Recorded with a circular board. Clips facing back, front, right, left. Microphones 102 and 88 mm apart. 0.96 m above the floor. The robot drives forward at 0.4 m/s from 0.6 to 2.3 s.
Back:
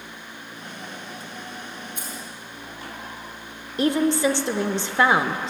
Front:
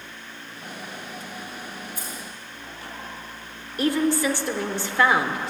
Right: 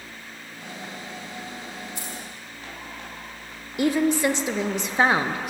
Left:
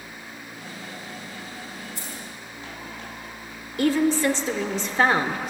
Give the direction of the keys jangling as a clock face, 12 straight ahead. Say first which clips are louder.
Even, right 1 dB; 4 o'clock.